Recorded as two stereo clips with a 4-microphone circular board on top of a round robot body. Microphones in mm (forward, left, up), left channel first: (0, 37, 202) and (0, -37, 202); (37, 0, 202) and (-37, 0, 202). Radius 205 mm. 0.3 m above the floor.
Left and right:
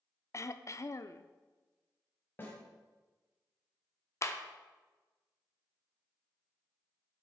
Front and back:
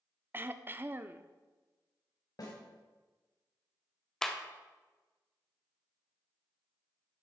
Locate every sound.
0.3 s throat clearing: 125° left, 0.7 m
2.4 s a snare drum: 30° left, 2.5 m
4.2 s a clap: 80° left, 1.4 m